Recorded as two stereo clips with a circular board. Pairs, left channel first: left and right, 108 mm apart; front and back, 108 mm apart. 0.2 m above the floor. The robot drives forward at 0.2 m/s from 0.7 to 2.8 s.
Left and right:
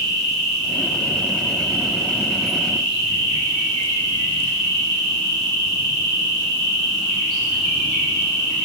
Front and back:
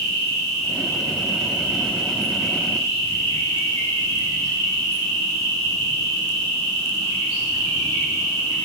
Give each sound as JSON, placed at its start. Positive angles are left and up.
{"t": 0.0, "sound": "an insect", "azimuth_deg": -165, "distance_m": 1.9}